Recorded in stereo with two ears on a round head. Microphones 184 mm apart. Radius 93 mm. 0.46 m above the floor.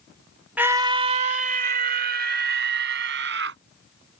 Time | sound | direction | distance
0.6 | a scream | 10° right (ahead or behind) | ?